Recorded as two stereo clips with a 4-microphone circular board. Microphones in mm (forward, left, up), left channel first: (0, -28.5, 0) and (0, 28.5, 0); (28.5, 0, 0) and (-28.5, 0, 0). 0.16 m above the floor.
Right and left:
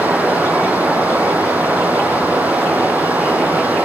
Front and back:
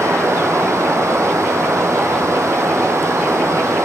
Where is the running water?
150° left, 4 m.